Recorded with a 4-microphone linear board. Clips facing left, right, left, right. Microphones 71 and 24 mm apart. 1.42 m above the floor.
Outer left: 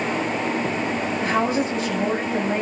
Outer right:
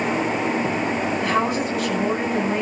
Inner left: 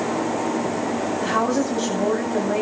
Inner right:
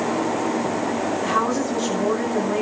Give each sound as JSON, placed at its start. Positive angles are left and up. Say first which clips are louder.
{"t": 1.2, "sound": "a woman speaking", "louder": "outer left 2 dB, inner left 2 dB", "side_deg": 35, "distance_m": 9.0}